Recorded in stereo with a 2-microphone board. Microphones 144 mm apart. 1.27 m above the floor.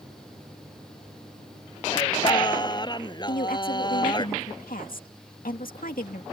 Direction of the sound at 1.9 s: 30° left (ahead or behind).